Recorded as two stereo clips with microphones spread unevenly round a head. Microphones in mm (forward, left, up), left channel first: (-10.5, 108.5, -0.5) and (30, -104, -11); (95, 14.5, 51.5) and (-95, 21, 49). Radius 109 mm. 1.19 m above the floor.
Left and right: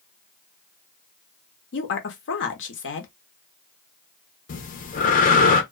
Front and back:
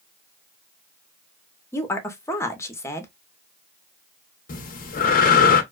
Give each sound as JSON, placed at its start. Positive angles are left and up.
{"t": 1.7, "sound": "a woman speaking", "azimuth_deg": 75, "distance_m": 0.8}
{"t": 4.5, "sound": "breathing", "azimuth_deg": 45, "distance_m": 0.6}